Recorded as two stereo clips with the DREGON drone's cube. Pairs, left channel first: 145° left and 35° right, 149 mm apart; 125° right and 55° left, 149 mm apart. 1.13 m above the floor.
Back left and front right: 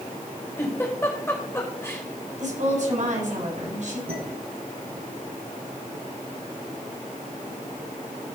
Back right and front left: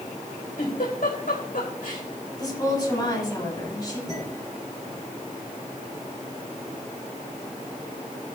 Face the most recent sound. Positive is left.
turn(degrees=-30)